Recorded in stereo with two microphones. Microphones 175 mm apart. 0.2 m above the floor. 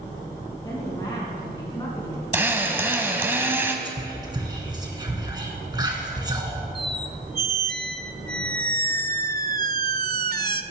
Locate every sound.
0.6 s a woman speaking: 25° left (ahead or behind), 2.5 m
2.3 s a drill: 15° right (ahead or behind), 1.1 m
3.9 s whispering: 25° right (ahead or behind), 2.5 m
6.8 s a squeak: 60° right (ahead or behind), 0.5 m